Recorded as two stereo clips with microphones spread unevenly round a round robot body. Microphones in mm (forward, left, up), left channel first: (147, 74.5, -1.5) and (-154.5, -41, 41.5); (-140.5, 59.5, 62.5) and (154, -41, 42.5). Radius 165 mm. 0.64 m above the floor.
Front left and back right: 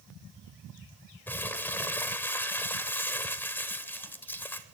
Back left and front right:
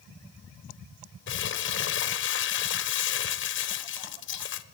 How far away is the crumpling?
About 0.7 m.